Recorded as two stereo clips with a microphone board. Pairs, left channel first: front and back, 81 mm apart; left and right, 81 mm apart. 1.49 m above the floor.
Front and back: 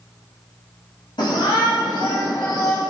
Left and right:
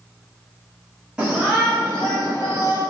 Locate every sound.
1.2 s a shout: 10° right, 3 m; by 2.8 s 45° left, 2 m